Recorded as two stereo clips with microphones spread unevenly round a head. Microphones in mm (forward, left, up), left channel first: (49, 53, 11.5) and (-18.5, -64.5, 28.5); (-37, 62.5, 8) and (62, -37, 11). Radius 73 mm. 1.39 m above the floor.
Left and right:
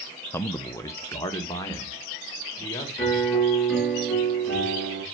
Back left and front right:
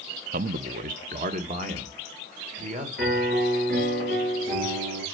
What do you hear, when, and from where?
0.3 s a man speaking: 15° right, 0.6 m; by 2.9 s 5° right, 3 m
3.0 s a piano: 25° right, 7.5 m